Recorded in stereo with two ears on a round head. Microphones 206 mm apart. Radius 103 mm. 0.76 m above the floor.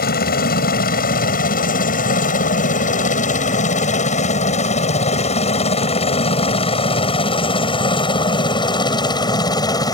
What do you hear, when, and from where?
0.0 s a helicopter: 40° left (ahead or behind); by 10.0 s 15° left (ahead or behind)